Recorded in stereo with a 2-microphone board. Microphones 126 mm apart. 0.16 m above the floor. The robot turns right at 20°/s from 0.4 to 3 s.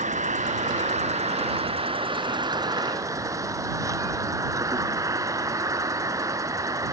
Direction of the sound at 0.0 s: 80° right.